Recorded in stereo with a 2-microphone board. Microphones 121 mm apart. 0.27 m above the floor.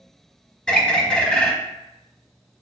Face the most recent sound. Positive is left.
turn(degrees=10)  # may be behind; listen again after turning